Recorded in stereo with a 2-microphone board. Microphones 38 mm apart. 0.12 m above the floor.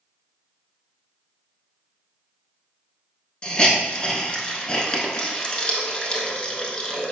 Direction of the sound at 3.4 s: 25° left (ahead or behind).